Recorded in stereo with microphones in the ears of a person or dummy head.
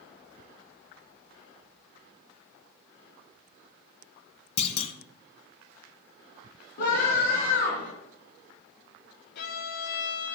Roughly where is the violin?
Left.